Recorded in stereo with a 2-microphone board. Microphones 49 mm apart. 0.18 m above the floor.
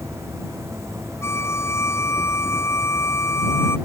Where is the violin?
70° left (ahead or behind).